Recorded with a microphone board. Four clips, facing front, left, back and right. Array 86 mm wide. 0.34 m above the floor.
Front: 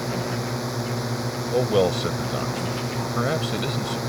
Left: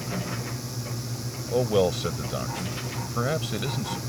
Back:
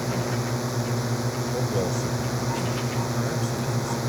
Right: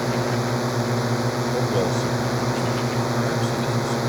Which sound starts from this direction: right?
A drone, at 0.0 s.